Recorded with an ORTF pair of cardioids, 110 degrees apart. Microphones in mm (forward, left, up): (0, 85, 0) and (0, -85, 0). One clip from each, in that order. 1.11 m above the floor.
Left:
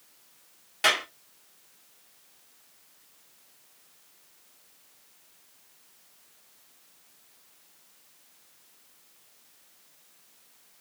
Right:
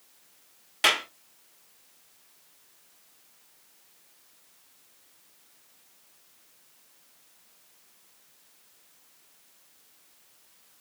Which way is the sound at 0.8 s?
20° right.